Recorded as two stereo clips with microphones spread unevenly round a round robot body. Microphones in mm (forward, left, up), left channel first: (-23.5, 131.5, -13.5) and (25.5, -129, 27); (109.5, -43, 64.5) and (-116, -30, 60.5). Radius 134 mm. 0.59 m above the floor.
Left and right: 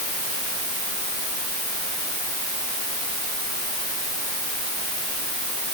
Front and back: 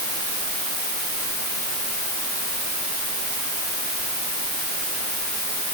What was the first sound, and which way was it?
Only background noise.